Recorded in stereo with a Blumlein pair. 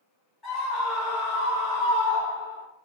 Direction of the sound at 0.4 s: 10° left.